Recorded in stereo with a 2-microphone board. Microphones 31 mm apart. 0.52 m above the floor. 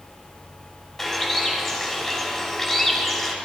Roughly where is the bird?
Centre.